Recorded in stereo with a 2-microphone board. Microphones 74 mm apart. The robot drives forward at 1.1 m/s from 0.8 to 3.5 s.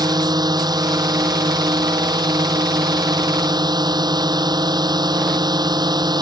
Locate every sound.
0.0 s a drone: 65° right (ahead or behind); by 6.2 s 70° right (ahead or behind)